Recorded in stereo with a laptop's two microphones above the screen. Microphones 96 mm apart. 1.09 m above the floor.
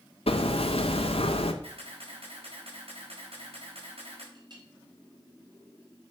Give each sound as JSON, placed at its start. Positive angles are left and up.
{"t": 0.3, "sound": "hammering", "side_deg": 80, "distance_m": 1.6}
{"t": 1.6, "sound": "a camera shutter", "side_deg": -85, "distance_m": 6.0}
{"t": 4.3, "sound": "a clink", "side_deg": -45, "distance_m": 4.0}